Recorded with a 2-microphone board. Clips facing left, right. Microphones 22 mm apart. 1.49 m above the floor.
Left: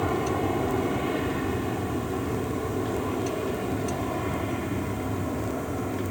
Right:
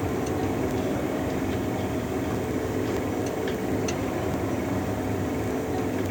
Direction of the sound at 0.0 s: 40° left (ahead or behind).